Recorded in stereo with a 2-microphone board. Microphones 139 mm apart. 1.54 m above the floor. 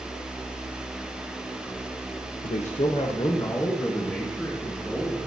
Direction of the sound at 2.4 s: 60° left (ahead or behind).